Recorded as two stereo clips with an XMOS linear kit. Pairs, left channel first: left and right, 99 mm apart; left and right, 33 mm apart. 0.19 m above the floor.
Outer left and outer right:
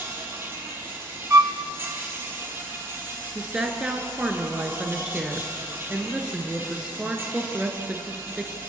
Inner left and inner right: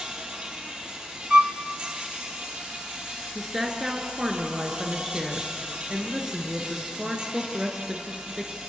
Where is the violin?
30° right (ahead or behind), 0.8 m.